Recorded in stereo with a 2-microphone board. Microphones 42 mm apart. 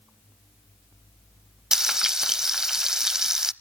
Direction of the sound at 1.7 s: 15° right (ahead or behind).